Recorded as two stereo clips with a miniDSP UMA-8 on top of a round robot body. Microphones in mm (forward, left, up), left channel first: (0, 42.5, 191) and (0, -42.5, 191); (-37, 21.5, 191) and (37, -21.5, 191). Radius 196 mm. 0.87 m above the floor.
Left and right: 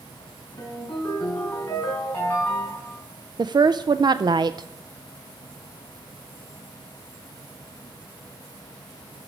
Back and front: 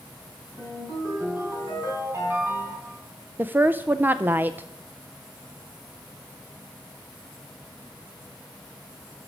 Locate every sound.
0.6 s a ringtone: 35° left, 4.5 m
3.4 s a woman speaking: 95° right, 0.5 m